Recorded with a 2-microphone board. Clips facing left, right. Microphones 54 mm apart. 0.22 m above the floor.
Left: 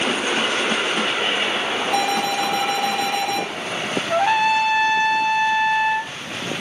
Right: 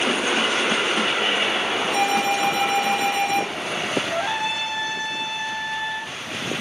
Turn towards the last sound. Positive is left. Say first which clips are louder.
# left 7 dB
turn(degrees=75)  # may be behind; listen again after turning